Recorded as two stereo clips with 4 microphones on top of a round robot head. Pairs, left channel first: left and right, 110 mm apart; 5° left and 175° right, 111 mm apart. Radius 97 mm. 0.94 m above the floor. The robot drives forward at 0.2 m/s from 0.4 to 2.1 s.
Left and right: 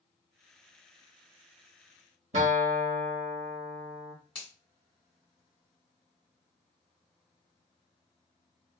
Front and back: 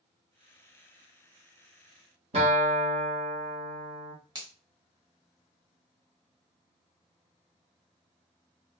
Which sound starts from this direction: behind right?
A guitar, at 2.3 s.